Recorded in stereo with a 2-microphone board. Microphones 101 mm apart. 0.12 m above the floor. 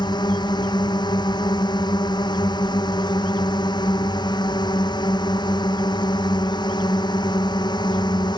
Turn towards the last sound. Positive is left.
turn(degrees=45)  # may be behind; listen again after turning